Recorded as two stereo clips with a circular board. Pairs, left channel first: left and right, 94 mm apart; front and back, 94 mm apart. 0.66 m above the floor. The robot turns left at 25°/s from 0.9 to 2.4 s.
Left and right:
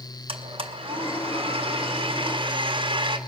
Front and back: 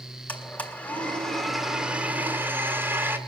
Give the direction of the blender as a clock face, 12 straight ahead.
3 o'clock.